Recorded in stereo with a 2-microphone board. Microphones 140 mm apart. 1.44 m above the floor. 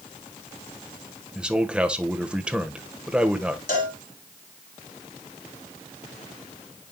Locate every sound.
1.4 s a man speaking: 5° right (ahead or behind), 1.2 m
3.7 s a cowbell: 70° left (ahead or behind), 3 m